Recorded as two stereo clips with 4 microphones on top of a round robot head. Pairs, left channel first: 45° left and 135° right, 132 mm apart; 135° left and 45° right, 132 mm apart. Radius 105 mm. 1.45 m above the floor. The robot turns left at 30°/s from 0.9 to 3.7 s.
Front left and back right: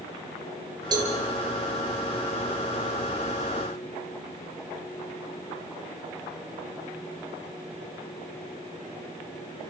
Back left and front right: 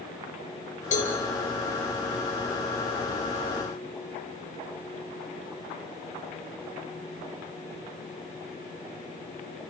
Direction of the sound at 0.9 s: 165° left.